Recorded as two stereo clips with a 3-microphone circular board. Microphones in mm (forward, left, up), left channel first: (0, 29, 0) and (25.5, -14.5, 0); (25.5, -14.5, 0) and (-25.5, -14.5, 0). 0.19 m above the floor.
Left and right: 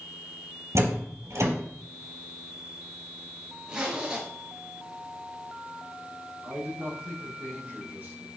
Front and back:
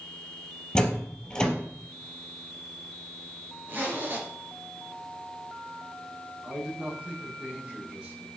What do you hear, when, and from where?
0.8 s a door slam: 75° right, 3.5 m
3.7 s a zipper: 130° right, 4 m
6.4 s a man speaking: 115° right, 6.5 m